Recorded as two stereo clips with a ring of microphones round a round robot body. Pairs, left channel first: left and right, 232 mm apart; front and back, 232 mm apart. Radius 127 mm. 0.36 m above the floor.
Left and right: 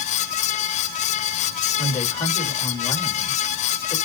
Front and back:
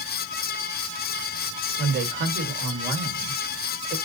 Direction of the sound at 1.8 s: 150° left.